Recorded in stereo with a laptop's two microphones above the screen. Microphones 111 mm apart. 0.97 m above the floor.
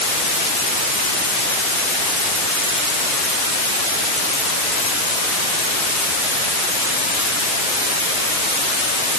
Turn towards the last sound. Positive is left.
No sound to turn to.